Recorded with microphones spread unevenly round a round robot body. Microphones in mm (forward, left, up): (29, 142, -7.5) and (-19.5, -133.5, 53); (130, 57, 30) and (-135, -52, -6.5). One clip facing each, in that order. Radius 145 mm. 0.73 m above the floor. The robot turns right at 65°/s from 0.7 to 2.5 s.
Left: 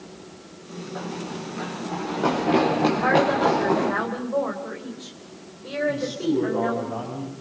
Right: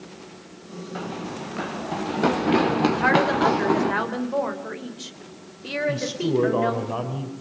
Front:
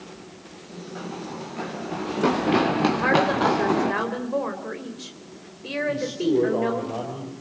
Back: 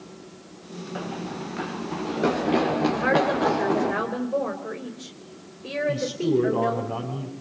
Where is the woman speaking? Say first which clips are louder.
Left 1 dB, front 1 dB; 60° right, 3.5 m.